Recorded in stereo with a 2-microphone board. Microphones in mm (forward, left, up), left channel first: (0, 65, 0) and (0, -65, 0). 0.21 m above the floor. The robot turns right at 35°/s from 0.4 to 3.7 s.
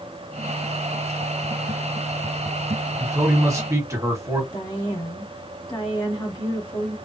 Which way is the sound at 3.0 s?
25° right (ahead or behind).